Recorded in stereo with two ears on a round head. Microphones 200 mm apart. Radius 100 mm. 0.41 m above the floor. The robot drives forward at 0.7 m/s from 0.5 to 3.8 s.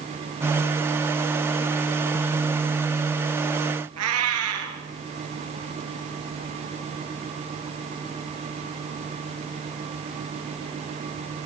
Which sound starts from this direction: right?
A cat meowing, at 4.0 s.